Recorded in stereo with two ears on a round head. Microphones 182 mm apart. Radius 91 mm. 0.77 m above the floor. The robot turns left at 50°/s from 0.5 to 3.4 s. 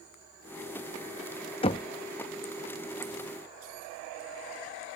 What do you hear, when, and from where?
1.6 s knocking: 30° left (ahead or behind); by 1.9 s 20° left (ahead or behind)